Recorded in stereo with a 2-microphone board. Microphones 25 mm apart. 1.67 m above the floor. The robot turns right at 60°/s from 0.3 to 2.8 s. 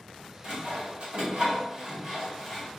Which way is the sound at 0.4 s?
50° right (ahead or behind).